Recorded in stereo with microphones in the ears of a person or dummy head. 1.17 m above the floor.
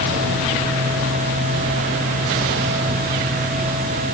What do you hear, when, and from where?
Only background noise.